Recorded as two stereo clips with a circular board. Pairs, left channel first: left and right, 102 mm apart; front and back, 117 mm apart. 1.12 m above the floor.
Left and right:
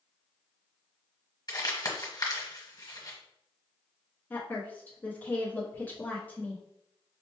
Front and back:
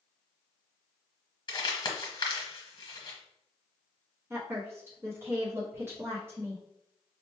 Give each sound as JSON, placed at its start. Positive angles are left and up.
{"t": 1.5, "sound": "crumpling", "azimuth_deg": 45, "distance_m": 1.1}
{"t": 4.3, "sound": "a woman speaking", "azimuth_deg": 140, "distance_m": 0.7}